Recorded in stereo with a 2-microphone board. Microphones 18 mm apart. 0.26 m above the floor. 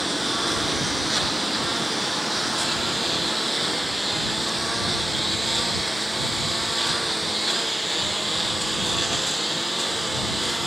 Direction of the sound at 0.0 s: 5° right (ahead or behind).